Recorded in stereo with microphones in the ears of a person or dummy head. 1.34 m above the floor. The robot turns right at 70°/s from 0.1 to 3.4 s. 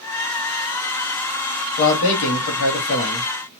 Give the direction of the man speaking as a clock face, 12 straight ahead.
10 o'clock.